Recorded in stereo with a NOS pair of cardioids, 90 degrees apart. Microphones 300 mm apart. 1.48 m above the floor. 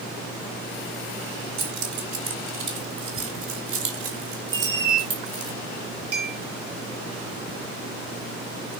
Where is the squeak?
45° right, 1.6 m.